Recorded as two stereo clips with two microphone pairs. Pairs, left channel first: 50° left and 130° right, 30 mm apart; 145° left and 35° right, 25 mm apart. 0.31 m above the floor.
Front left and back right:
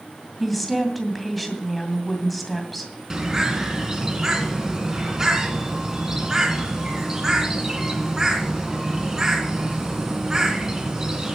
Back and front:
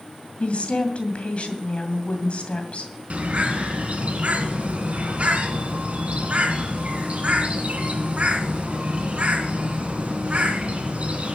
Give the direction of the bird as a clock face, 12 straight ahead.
2 o'clock.